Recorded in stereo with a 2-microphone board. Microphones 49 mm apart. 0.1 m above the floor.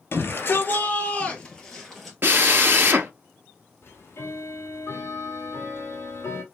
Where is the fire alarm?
I don't hear a fire alarm.